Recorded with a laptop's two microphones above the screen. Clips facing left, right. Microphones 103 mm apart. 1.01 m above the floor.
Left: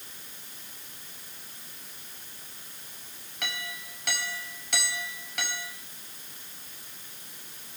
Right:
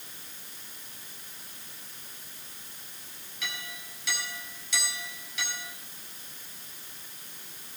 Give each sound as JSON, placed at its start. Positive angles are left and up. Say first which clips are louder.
{"t": 3.4, "sound": "a clink", "louder": "left 3 dB", "side_deg": 60, "distance_m": 4.0}